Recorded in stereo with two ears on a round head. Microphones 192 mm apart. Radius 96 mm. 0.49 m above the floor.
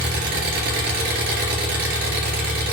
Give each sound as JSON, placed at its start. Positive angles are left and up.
{"t": 0.0, "sound": "an engine running", "side_deg": -50, "distance_m": 2.5}